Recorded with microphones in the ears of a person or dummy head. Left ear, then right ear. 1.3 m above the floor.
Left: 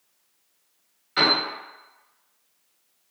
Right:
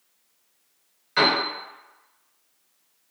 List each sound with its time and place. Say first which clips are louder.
1.2 s a piano: even; 5° right (ahead or behind), 1.1 m